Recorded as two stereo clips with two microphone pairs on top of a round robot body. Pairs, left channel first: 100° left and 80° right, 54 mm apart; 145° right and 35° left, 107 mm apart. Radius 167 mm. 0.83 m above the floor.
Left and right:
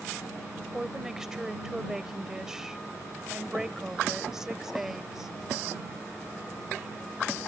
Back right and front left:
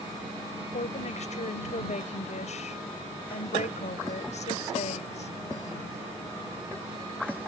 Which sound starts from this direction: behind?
A woman speaking, at 0.7 s.